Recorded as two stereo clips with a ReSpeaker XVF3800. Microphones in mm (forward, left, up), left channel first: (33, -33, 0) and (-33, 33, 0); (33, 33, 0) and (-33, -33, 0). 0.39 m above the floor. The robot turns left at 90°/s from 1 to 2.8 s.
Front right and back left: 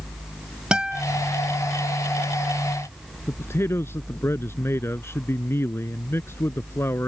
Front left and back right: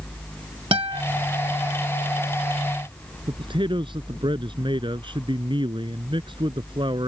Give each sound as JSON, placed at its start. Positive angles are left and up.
{"t": 0.7, "sound": "a guitar", "azimuth_deg": -145}
{"t": 3.3, "sound": "a man speaking", "azimuth_deg": -110}